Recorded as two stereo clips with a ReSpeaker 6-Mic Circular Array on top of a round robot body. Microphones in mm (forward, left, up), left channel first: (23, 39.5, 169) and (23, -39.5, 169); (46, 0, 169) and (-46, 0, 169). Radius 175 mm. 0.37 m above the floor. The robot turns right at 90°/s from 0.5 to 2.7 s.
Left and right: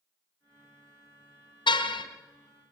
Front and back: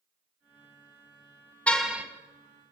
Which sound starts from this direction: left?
A car horn, at 1.7 s.